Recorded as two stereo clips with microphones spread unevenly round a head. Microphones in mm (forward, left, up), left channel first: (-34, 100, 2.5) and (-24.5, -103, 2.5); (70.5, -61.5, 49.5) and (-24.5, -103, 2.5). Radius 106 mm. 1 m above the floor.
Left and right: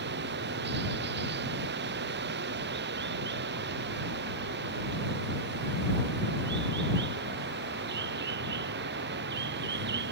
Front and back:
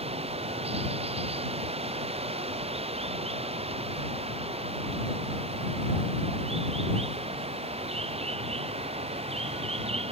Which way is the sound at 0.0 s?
125° right.